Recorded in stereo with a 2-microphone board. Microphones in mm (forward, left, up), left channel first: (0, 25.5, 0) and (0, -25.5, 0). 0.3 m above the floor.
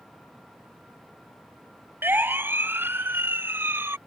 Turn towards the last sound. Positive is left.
turn(degrees=-50)  # may be behind; listen again after turning